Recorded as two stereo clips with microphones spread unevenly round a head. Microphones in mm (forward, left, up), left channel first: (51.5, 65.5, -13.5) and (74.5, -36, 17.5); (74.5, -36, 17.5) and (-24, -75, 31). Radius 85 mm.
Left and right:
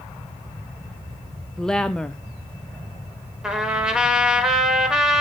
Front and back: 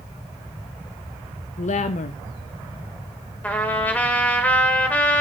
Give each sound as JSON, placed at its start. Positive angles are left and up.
{"t": 1.6, "sound": "a woman speaking", "azimuth_deg": 20, "distance_m": 0.5}
{"t": 3.4, "sound": "a trumpet", "azimuth_deg": -55, "distance_m": 1.4}